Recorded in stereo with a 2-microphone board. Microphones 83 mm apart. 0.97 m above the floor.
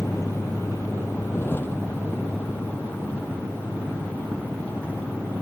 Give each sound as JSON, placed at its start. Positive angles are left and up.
{"t": 0.0, "sound": "a vehicle", "side_deg": 35}